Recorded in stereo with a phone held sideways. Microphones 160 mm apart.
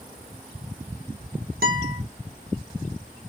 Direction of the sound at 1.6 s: 75° right (ahead or behind).